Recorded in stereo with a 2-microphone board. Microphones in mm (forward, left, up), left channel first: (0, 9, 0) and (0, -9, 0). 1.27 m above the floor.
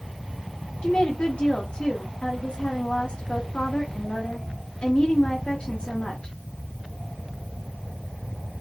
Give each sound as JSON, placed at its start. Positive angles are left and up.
{"t": 0.8, "sound": "a woman speaking", "side_deg": 80, "distance_m": 0.8}